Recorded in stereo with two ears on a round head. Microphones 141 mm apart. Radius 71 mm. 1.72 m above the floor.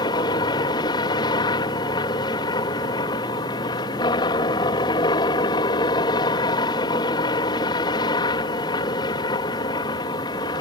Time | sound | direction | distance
0.0 | a helicopter | 30° left (ahead or behind) | ?